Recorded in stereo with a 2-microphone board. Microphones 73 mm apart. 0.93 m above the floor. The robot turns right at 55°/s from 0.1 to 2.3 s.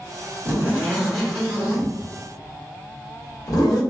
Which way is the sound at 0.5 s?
30° right (ahead or behind).